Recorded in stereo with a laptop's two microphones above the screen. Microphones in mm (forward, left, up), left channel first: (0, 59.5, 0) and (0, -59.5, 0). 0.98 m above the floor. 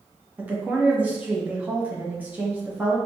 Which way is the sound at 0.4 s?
10° right (ahead or behind).